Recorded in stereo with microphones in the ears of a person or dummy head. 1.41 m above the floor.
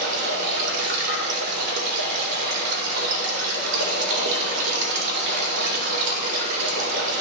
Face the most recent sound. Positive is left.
turn(degrees=-65)  # may be behind; listen again after turning